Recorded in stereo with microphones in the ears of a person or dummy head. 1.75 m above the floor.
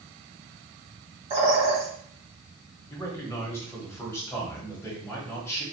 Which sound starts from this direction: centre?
A man speaking, at 2.9 s.